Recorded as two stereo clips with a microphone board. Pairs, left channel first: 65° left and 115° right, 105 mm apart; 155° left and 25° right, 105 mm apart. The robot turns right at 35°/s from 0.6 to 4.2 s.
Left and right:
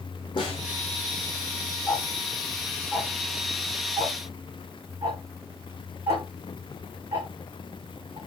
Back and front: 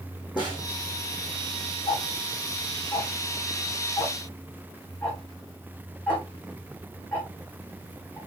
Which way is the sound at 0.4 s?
110° left.